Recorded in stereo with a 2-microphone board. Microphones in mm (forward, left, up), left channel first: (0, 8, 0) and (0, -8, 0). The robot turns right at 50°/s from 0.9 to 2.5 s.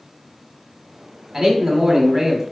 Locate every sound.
1.3 s a man speaking: 10° right (ahead or behind), 1.0 m; by 2.4 s 20° right (ahead or behind), 1.0 m